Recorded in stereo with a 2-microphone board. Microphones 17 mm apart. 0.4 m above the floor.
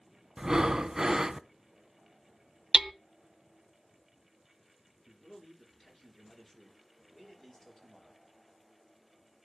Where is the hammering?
25° right (ahead or behind), 0.6 m.